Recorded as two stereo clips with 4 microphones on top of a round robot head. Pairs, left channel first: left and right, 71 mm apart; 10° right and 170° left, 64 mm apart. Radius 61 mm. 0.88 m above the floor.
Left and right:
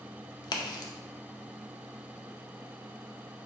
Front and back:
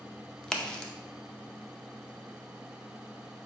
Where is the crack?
70° left, 0.6 m.